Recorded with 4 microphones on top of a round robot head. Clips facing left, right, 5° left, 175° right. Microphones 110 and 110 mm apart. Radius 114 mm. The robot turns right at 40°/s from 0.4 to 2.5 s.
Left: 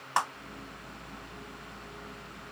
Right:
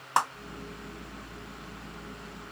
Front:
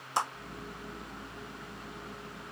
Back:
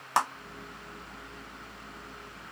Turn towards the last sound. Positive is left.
turn(degrees=-75)